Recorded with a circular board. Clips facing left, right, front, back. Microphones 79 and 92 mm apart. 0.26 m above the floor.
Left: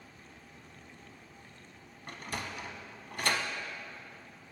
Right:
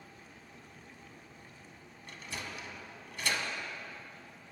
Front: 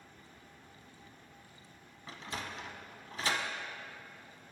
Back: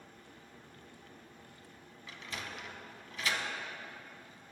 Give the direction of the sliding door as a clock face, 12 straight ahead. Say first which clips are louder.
Left 4 dB, front 2 dB; 10 o'clock.